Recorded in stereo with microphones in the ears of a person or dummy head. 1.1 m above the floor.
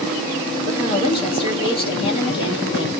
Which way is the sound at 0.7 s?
30° left (ahead or behind).